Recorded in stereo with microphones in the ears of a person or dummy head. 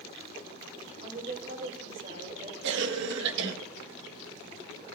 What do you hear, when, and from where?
1.0 s a woman speaking: 45° right (ahead or behind), 4 m
2.6 s a cough: 60° right (ahead or behind), 1.5 m